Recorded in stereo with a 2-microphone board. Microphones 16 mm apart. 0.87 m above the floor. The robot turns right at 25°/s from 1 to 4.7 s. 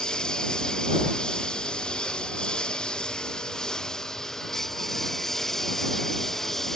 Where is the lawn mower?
65° left; by 6.8 s 160° left.